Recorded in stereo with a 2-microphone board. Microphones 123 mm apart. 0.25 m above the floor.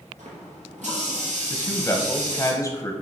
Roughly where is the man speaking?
Left.